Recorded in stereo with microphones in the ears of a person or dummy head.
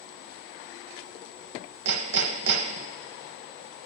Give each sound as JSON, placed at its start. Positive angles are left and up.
{"t": 1.9, "sound": "hammering", "side_deg": -65, "distance_m": 0.7}